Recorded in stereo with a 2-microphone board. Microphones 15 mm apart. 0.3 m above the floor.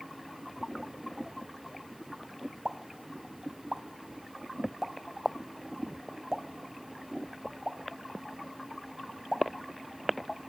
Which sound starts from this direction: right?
A pop, at 2.6 s.